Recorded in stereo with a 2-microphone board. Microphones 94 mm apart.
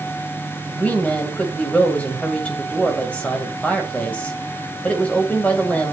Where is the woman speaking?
15° left (ahead or behind), 2.5 m.